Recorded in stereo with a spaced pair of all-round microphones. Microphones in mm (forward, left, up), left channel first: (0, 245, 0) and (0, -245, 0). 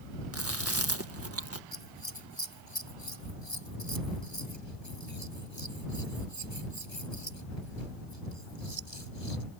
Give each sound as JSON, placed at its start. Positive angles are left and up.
{"t": 0.3, "sound": "chewing", "side_deg": -30}
{"t": 1.7, "sound": "scissors", "side_deg": 60}